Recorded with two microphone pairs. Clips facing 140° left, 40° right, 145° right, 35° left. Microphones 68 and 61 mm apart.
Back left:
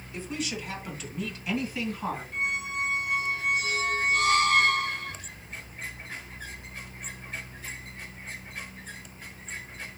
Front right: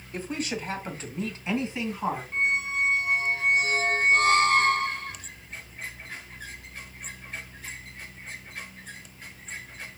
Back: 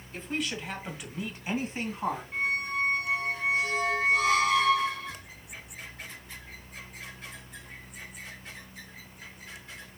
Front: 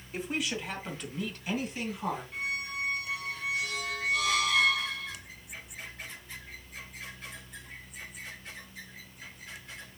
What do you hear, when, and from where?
0.1 s a woman speaking: 40° right, 2 m; by 2.2 s 110° right, 2.5 m
2.3 s a squeak: 90° right, 1.2 m